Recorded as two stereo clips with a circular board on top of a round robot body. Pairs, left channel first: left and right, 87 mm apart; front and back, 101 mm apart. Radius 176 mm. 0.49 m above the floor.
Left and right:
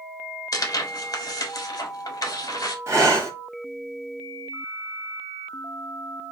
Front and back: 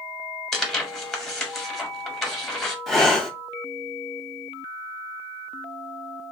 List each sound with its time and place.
0.5 s tearing paper: 85° left, 1.3 m
2.9 s breathing: 85° right, 1.4 m